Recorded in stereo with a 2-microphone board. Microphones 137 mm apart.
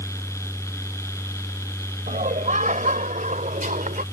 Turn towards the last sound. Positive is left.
turn(degrees=-75)  # may be behind; listen again after turning